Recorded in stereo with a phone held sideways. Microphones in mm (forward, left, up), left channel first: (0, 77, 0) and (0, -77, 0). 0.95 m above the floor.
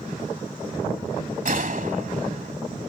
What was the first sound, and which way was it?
A gunshot, 60° right (ahead or behind).